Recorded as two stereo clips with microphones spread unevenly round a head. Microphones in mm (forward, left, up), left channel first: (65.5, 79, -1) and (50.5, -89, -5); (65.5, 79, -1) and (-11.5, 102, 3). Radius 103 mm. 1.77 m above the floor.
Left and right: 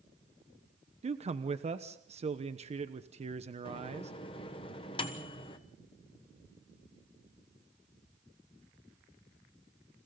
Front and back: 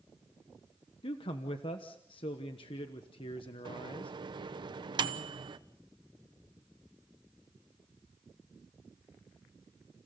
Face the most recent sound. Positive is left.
turn(degrees=150)